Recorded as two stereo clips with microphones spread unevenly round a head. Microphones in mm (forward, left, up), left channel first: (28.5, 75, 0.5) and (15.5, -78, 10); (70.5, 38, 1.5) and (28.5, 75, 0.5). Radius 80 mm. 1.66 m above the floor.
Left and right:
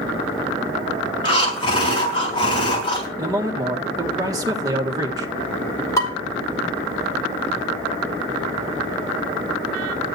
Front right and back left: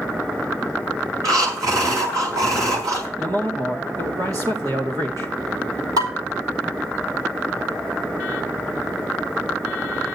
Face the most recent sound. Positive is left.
turn(degrees=160)